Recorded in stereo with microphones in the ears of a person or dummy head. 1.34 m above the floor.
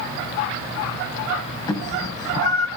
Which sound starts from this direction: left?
A cat meowing, at 1.7 s.